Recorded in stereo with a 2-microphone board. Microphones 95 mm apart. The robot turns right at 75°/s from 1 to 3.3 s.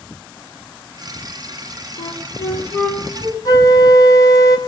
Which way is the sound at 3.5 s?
40° left (ahead or behind).